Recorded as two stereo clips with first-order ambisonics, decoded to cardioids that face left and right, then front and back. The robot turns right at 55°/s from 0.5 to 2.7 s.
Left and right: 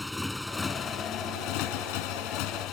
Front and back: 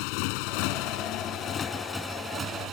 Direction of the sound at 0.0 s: 5° left.